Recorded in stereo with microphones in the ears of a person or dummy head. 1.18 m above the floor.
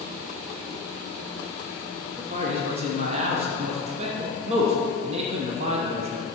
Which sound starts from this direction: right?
A man speaking, at 2.2 s.